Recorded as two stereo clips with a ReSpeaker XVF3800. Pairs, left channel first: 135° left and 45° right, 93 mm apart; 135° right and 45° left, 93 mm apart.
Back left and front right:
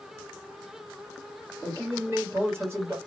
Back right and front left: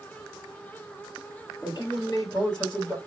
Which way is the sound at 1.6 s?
105° right.